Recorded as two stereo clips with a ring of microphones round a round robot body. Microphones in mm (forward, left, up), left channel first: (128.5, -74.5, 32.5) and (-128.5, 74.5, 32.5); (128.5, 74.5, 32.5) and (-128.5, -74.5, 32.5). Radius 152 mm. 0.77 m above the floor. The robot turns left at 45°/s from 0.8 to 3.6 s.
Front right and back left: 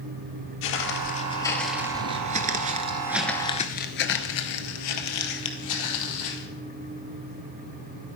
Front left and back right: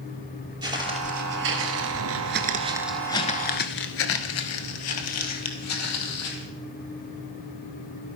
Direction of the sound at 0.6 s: 75° right.